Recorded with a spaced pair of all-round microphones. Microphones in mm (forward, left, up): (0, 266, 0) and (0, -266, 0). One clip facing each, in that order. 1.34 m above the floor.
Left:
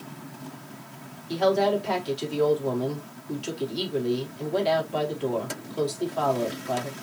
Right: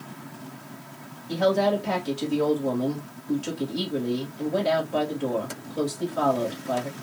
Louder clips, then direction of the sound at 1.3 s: Even; 65° right (ahead or behind).